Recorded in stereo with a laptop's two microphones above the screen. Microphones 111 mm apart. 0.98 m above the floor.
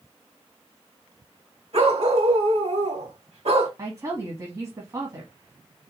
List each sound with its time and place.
1.7 s a dog barking: 80° right, 3 m
3.8 s a woman speaking: 35° right (ahead or behind), 1.5 m